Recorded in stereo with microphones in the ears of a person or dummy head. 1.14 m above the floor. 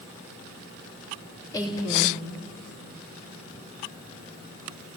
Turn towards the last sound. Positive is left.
turn(degrees=20)  # may be behind; listen again after turning